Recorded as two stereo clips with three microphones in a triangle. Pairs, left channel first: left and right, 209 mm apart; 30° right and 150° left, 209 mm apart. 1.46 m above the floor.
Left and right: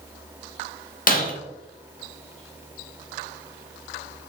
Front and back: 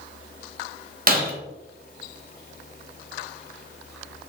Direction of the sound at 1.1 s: 120° left.